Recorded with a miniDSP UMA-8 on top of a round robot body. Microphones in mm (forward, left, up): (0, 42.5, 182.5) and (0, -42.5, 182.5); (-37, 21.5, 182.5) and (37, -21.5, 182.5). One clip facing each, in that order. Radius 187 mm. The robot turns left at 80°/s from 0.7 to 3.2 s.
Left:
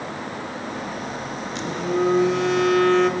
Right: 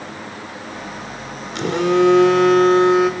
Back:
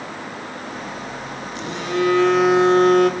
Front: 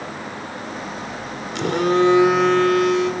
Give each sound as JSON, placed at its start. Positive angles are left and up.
{"t": 1.6, "sound": "a phone buzzing", "azimuth_deg": -55, "distance_m": 1.7}